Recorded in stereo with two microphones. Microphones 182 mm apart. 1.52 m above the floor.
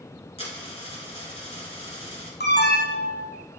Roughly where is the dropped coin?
Left.